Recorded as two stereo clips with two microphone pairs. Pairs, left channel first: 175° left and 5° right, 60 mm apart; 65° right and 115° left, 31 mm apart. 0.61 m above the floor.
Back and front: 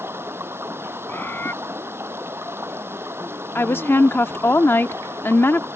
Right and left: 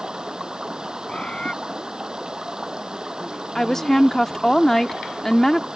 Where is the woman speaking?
140° right.